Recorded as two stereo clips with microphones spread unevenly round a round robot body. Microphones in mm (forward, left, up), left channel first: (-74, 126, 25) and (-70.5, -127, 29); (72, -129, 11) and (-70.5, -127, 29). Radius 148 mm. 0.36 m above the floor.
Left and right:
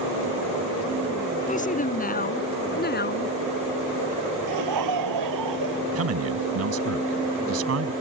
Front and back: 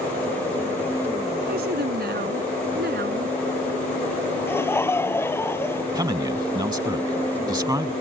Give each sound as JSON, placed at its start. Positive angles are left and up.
{"t": 1.5, "sound": "a woman speaking", "azimuth_deg": 150}
{"t": 4.5, "sound": "laughter", "azimuth_deg": -75}
{"t": 5.9, "sound": "a man speaking", "azimuth_deg": -115}